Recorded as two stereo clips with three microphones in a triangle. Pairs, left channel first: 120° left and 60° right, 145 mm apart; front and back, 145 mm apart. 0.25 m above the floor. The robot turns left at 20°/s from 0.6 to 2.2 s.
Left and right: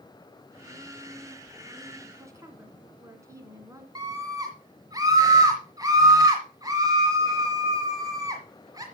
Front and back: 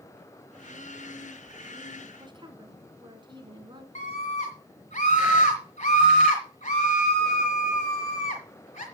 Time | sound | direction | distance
2.2 | a woman speaking | 125° right | 2 m
4.0 | a scream | 5° right | 1.6 m